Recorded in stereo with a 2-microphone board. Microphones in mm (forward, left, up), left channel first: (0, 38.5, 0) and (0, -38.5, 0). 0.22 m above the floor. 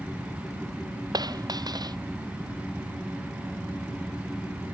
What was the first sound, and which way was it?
A dropped coin, 60° right (ahead or behind).